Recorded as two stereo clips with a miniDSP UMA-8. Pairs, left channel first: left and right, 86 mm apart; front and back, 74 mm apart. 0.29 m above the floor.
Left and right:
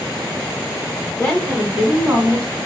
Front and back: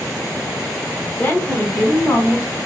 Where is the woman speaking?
50° left, 1.2 m; by 2.5 s 35° right, 1.4 m.